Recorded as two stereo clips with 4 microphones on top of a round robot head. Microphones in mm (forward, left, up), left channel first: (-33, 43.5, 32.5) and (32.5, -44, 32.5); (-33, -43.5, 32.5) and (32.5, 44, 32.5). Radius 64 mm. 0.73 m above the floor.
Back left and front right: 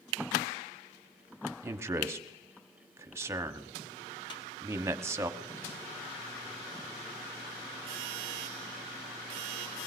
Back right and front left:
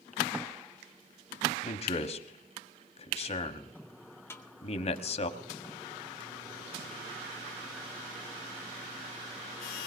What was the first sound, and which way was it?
A man speaking, 115° right.